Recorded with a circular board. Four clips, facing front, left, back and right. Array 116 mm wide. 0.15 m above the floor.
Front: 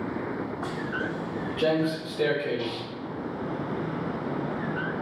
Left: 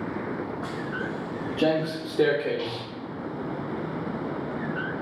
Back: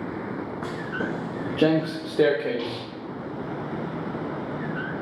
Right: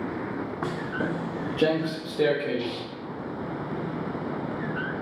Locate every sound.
0.6 s footsteps: 110° right, 0.7 m; by 2.8 s 160° left, 1.5 m